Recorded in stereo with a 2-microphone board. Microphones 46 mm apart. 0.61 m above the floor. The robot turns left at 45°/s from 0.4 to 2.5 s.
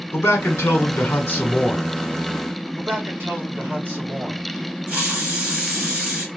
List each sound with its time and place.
0.1 s a man speaking: 90° left, 1.5 m; by 1.9 s 25° left, 1.5 m
2.8 s a man speaking: 45° right (ahead or behind), 2 m
4.9 s a hiss: 30° right (ahead or behind), 2.0 m